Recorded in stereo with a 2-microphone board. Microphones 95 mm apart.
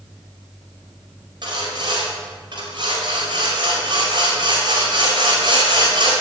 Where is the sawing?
55° right (ahead or behind), 5 m.